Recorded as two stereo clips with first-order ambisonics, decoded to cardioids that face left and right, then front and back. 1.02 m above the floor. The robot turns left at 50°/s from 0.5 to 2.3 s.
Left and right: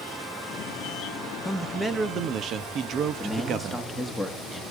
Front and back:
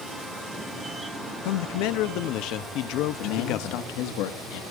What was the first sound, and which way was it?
A man speaking, 10° left.